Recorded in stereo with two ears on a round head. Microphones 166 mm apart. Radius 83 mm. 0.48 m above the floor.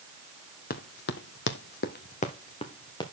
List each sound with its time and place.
0.7 s running footsteps: 50° left (ahead or behind), 1.5 m; by 3.0 s 25° left (ahead or behind), 2.5 m